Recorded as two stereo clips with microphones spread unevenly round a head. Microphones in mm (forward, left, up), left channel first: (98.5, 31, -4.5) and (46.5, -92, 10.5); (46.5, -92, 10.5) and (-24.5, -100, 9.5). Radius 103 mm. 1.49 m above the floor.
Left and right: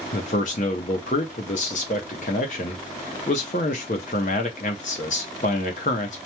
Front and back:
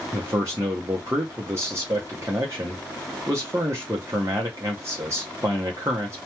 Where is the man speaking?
115° left, 0.6 m.